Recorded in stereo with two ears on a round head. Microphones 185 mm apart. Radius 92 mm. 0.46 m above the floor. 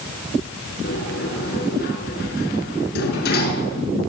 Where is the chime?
I don't hear a chime.